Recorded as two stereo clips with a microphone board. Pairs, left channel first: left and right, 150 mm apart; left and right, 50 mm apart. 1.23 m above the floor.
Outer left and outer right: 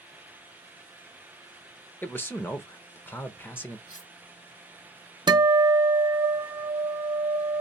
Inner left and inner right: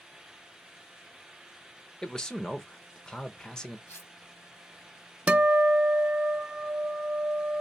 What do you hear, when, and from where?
2.0 s a man speaking: 15° left (ahead or behind), 0.8 m
3.9 s cutlery clinking: 60° left (ahead or behind), 2 m
5.3 s a guitar: 30° right (ahead or behind), 0.6 m